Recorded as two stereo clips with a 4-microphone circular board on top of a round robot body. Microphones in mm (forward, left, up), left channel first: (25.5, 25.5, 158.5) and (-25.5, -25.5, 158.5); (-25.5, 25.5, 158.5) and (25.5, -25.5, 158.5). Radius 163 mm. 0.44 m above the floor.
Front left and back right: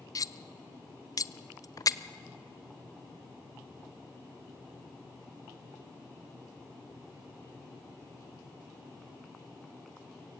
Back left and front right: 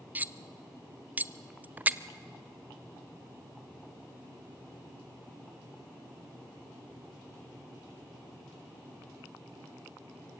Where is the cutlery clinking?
15° left, 0.8 m.